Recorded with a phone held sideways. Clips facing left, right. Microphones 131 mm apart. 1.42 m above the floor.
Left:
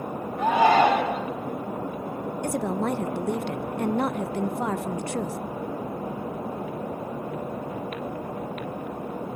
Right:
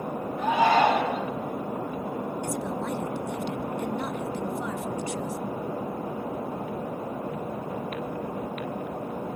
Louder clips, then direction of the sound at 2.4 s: Left 4 dB; 60° left (ahead or behind).